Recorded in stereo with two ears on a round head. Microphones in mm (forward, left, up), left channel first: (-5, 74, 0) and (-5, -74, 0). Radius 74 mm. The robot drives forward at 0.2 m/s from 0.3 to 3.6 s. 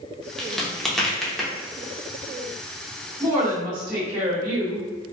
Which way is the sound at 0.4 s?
Centre (ahead or behind).